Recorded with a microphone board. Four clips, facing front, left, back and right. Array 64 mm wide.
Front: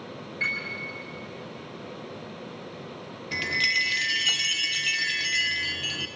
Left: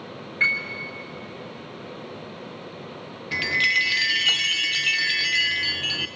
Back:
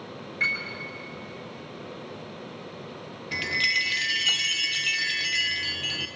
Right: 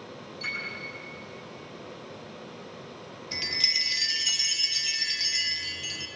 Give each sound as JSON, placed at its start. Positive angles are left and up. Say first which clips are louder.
{"t": 0.4, "sound": "a piano", "louder": "left 12 dB, back 2 dB", "azimuth_deg": 105, "distance_m": 5.0}
{"t": 3.3, "sound": "a chime", "louder": "left 12 dB, even", "azimuth_deg": 95, "distance_m": 0.5}